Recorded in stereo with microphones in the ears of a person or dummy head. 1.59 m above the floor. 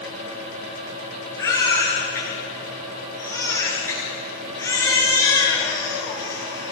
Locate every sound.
1.4 s a baby crying: 20° left (ahead or behind), 9 m